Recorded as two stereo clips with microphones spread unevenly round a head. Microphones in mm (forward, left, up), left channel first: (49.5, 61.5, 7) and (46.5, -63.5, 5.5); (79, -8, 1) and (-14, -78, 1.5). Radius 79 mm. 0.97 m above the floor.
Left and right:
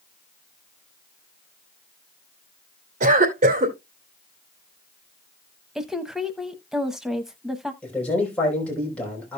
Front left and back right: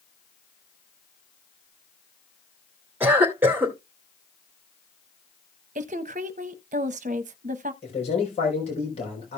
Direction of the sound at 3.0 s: 70° right.